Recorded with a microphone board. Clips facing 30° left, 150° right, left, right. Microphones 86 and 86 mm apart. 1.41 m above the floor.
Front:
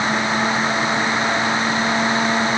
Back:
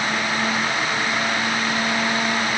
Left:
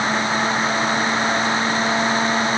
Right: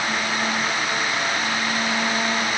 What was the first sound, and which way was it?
Only background noise.